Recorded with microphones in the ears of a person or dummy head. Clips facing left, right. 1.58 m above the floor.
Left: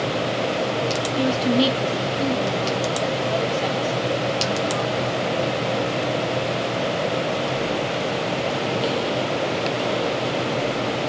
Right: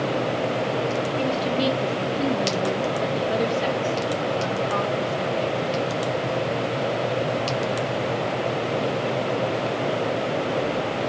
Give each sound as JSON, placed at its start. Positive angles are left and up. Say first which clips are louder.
{"t": 1.2, "sound": "a woman speaking", "louder": "left 7 dB", "side_deg": 15, "distance_m": 1.1}